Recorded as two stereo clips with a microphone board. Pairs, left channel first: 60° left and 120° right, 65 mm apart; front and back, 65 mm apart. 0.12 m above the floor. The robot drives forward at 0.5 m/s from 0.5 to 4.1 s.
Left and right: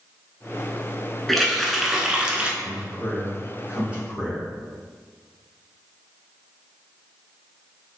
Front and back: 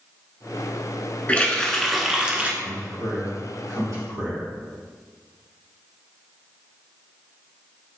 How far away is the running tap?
About 0.8 m.